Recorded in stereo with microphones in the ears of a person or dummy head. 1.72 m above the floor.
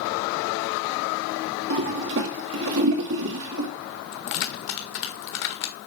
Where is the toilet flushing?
65° right (ahead or behind), 2 m.